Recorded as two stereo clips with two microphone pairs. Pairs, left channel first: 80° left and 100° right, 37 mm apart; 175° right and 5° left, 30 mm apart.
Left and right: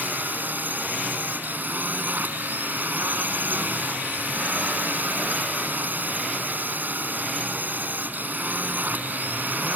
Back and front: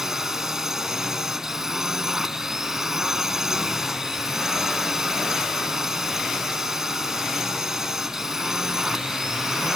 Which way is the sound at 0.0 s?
70° right.